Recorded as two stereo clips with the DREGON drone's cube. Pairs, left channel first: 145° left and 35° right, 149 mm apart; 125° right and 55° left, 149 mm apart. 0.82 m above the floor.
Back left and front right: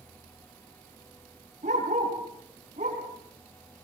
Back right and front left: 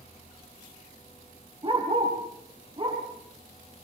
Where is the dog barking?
Straight ahead, 7 m; by 3.0 s 5° left, 8 m.